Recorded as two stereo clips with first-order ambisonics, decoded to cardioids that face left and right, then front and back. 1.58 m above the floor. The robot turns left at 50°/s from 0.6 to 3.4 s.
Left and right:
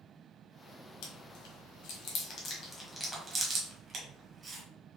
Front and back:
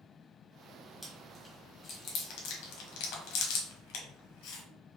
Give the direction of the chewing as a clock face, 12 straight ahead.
9 o'clock.